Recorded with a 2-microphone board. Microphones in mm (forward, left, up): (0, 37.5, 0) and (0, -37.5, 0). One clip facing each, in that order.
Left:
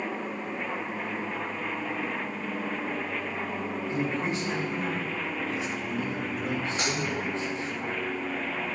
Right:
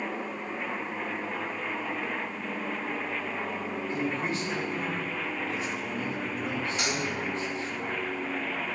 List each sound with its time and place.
3.9 s a man speaking: 20° left (ahead or behind), 2 m
6.8 s a dropped coin: 30° left (ahead or behind), 3 m